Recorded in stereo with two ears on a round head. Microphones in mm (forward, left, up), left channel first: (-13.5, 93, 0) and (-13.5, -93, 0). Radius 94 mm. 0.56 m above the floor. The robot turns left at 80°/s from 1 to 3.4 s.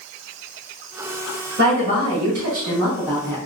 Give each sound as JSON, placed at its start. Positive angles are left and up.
{"t": 1.6, "sound": "a woman speaking", "azimuth_deg": -50, "distance_m": 1.7}